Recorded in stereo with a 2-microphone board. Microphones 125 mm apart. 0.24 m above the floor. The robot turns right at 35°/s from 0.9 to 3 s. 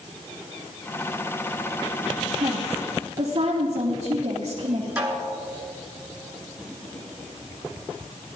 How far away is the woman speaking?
About 3 m.